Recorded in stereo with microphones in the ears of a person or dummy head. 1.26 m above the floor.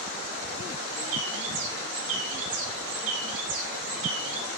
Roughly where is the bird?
Right.